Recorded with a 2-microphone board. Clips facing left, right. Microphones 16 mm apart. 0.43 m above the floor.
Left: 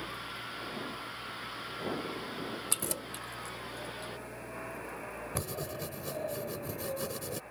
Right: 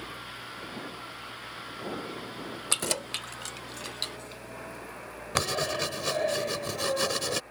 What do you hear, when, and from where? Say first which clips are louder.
2.7 s keys jangling: right 7 dB; 35° right (ahead or behind); by 4.4 s 70° right (ahead or behind)
5.3 s writing: right 12 dB; 55° right (ahead or behind)